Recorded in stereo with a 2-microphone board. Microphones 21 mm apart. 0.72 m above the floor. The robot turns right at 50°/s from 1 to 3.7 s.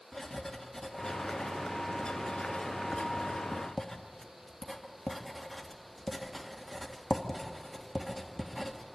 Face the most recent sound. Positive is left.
turn(degrees=15)  # may be behind; listen again after turning